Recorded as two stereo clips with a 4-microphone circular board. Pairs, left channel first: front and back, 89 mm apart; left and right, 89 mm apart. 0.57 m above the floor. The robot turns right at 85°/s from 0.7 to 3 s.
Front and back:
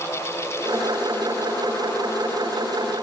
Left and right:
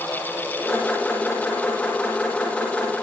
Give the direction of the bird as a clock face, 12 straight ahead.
No bird in this recording.